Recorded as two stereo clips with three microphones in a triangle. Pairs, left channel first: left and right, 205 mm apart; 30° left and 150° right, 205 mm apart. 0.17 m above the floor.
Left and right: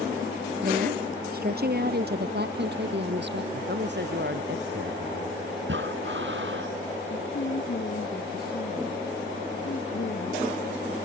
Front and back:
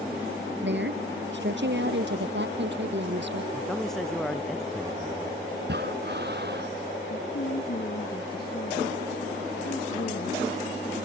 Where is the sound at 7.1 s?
60° left.